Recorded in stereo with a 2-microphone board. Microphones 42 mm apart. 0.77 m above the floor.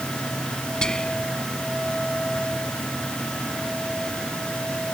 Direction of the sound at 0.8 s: 20° left (ahead or behind).